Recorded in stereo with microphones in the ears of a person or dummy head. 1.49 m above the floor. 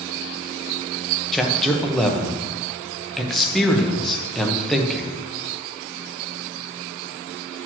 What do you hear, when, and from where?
1.3 s a man speaking: centre (ahead or behind), 1.4 m